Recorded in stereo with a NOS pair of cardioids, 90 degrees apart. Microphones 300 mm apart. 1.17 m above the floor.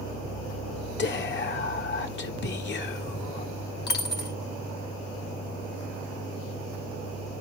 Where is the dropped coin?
35° left, 1.8 m.